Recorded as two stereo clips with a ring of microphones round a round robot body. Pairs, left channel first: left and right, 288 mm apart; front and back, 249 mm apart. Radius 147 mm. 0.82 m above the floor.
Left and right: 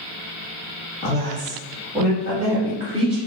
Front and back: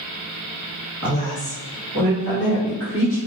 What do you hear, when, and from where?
1.0 s a woman speaking: 30° left, 1.3 m; by 3.2 s 35° right, 1.9 m